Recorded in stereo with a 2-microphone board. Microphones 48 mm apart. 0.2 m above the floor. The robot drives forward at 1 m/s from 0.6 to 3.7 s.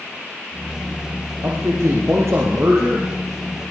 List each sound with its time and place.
1.4 s a man speaking: 75° right (ahead or behind), 6.5 m; by 3.1 s 65° right (ahead or behind), 6.5 m